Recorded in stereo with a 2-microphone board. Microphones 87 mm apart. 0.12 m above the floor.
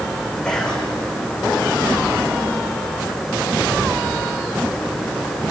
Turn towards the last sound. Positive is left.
turn(degrees=10)  # may be behind; listen again after turning